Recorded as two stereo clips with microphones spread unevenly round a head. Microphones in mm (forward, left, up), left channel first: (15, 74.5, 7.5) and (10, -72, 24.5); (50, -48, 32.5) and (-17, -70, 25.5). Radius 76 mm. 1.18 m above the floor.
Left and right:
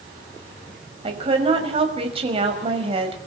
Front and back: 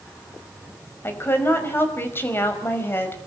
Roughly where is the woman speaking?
Ahead right.